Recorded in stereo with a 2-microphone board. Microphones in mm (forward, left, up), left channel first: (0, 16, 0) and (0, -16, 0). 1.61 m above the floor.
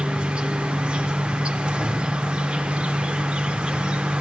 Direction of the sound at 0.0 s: 35° right (ahead or behind).